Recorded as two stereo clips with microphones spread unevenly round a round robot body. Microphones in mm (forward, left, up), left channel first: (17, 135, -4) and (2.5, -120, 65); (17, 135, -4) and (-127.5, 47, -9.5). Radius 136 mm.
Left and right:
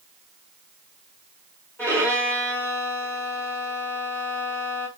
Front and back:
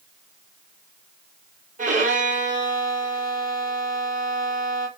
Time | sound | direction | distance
1.8 | a violin | 170° left | 1.4 m